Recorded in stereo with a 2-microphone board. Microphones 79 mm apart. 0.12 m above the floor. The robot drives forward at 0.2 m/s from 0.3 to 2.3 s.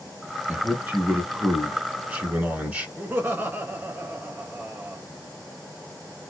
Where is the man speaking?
20° right (ahead or behind), 1.2 m.